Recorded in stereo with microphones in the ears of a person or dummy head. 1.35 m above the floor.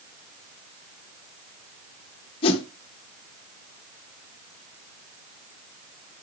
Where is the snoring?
No snoring in this recording.